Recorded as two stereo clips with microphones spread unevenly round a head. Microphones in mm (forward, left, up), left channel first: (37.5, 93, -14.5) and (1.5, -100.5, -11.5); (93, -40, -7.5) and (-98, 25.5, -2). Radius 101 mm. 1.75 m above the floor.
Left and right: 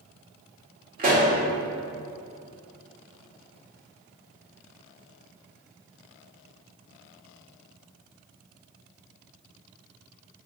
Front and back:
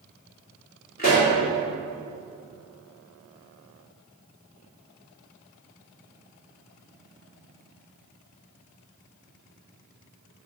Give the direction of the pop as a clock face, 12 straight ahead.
2 o'clock.